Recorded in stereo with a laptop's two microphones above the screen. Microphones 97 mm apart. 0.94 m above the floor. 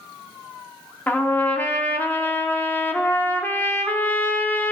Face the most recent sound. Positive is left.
turn(degrees=20)  # may be behind; listen again after turning